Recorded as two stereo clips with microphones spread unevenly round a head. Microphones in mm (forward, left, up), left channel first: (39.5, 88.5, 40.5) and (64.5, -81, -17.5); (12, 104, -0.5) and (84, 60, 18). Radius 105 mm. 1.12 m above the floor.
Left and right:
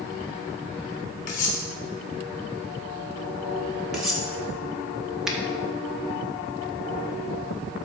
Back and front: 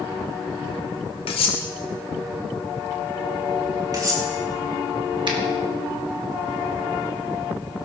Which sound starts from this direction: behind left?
Cutlery clinking, at 1.3 s.